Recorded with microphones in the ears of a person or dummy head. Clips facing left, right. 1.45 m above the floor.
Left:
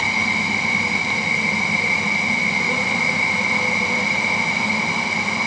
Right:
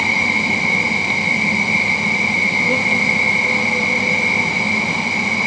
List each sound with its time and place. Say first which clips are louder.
0.0 s an insect: right 3 dB; 10° right (ahead or behind), 2 m